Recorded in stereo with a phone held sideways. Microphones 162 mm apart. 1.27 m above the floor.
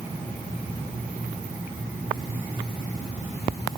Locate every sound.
Only background noise.